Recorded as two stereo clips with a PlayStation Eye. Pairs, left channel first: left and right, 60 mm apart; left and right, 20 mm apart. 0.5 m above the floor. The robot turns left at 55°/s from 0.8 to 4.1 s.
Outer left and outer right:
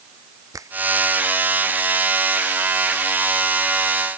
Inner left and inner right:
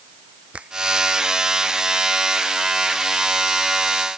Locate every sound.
0.5 s a finger snap: 70° right (ahead or behind)